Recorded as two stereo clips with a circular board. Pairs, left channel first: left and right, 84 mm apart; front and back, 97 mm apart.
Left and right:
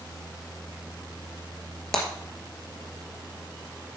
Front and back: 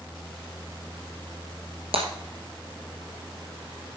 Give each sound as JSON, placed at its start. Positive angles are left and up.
{"t": 1.9, "sound": "breaking glass", "azimuth_deg": 175, "distance_m": 3.5}